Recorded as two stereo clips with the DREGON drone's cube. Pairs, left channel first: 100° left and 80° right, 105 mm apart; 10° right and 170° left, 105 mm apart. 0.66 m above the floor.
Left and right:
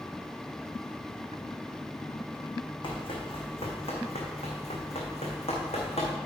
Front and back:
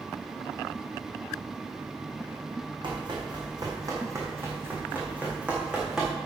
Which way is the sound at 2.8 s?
135° left.